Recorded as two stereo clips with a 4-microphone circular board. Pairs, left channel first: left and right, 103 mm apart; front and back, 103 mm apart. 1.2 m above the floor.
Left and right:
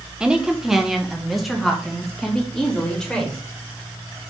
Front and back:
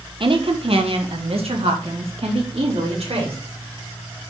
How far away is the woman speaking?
About 1.0 m.